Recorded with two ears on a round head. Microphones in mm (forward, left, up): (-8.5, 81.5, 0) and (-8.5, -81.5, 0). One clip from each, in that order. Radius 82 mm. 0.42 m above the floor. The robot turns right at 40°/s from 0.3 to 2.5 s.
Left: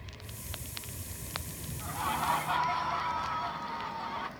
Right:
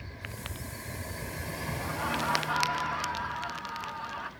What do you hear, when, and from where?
1.8 s laughter: 70° left (ahead or behind), 4.5 m